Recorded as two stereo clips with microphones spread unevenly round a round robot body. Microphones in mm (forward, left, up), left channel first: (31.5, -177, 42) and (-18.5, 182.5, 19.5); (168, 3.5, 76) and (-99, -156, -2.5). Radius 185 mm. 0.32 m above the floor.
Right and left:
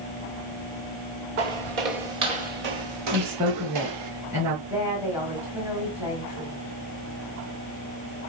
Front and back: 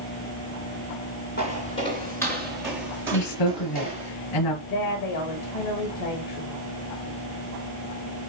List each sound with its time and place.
1.4 s footsteps: 95° left, 1.7 m; by 4.1 s 135° left, 2.5 m
3.1 s a woman speaking: 15° left, 4.5 m
4.7 s a woman speaking: 15° left, 1.9 m